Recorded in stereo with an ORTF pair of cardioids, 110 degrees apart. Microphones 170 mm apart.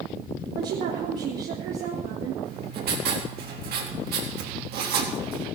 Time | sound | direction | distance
0.6 | a woman speaking | 60° right | 3.5 m
2.5 | writing | 65° right | 4 m